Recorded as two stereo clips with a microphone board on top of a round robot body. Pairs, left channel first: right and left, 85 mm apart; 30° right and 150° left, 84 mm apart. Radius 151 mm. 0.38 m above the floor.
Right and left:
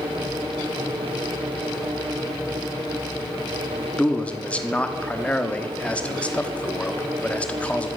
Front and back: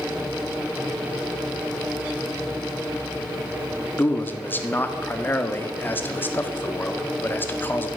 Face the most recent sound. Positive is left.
turn(degrees=-40)